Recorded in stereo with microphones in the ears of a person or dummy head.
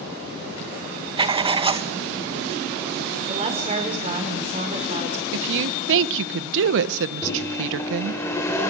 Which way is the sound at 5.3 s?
70° right (ahead or behind).